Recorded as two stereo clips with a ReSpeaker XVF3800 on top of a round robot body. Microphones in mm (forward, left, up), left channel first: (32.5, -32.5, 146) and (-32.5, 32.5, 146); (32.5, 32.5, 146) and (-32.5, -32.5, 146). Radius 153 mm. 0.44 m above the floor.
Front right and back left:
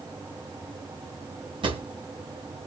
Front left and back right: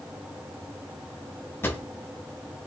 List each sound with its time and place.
1.6 s a drawer: 110° left, 1.5 m